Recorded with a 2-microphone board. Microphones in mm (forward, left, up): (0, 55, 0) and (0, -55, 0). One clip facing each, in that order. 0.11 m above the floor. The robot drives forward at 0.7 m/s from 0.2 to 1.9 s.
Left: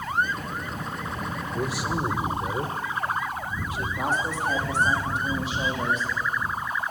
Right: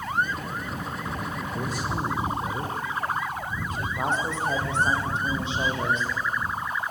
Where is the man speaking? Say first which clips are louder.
Left 3 dB; 10° left (ahead or behind), 2.5 m.